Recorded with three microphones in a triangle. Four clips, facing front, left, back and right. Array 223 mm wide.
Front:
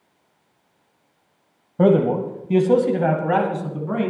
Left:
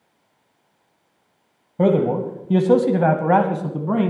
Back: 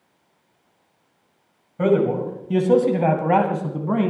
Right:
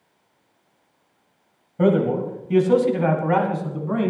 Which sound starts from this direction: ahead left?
A man speaking, at 1.8 s.